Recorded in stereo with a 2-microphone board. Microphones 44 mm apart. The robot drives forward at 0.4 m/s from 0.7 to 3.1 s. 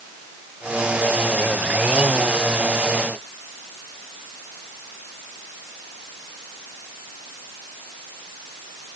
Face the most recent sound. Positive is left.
No sound to turn to.